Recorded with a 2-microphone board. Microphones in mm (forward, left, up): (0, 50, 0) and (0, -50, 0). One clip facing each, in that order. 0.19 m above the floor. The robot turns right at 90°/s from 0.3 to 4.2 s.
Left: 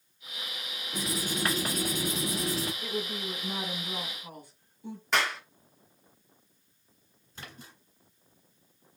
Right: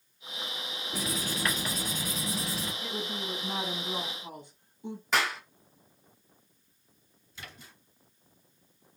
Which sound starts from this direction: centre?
A clap, at 5.1 s.